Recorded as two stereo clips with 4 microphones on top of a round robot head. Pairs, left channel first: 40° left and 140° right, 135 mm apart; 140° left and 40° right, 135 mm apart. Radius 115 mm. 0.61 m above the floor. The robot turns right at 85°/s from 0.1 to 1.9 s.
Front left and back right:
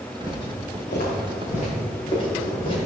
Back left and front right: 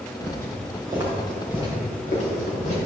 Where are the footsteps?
30° right, 4.5 m; by 2.8 s 95° left, 5 m.